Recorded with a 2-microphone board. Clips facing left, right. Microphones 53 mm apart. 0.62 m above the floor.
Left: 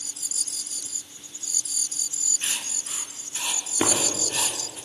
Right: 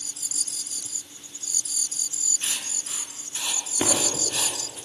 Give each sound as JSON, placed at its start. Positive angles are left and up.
{"t": 2.4, "sound": "writing", "side_deg": 20, "distance_m": 1.5}
{"t": 3.8, "sound": "breaking glass", "side_deg": 15, "distance_m": 3.0}